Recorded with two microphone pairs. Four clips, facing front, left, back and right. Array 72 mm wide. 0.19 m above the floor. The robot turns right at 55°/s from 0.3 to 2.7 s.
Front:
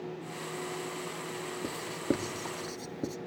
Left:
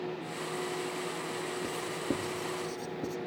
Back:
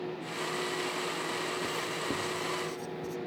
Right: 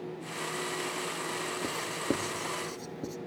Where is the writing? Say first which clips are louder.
Right 3 dB, front 1 dB; 75° right, 1.0 m; by 3.2 s 20° right, 1.0 m.